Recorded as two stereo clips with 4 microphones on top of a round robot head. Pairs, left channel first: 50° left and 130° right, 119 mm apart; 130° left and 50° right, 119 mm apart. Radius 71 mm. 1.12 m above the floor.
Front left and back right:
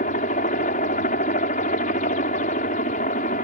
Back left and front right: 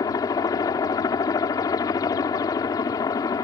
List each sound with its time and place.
0.0 s a helicopter: 70° left